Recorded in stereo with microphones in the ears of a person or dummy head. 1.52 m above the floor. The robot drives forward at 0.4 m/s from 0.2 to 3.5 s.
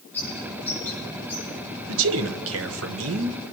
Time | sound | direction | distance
0.1 | a bird | 15° left (ahead or behind) | 7.5 m
1.9 | a man speaking | 75° right (ahead or behind) | 1.3 m